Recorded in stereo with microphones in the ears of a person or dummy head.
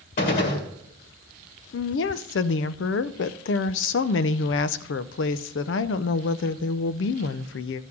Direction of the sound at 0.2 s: 45° left (ahead or behind).